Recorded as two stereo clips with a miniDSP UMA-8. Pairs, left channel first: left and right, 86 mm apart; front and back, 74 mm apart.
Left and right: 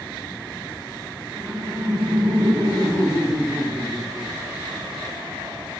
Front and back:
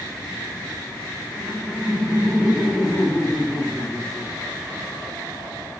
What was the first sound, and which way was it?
Laughter, 90° right.